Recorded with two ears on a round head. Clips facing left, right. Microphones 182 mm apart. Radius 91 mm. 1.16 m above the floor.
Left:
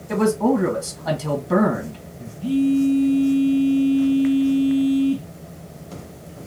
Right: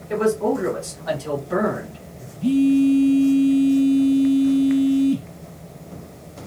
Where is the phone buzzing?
25° right (ahead or behind), 0.6 m.